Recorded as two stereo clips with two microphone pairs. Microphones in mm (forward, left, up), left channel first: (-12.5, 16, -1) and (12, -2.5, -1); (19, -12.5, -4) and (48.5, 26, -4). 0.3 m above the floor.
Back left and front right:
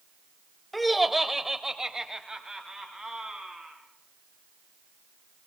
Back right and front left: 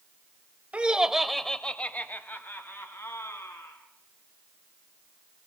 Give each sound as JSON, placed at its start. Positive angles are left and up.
{"t": 0.7, "sound": "laughter", "azimuth_deg": 55, "distance_m": 1.5}